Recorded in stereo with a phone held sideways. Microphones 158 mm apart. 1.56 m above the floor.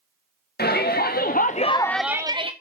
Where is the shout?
85° left, 1.7 m; by 2.5 s 35° right (ahead or behind), 1.0 m.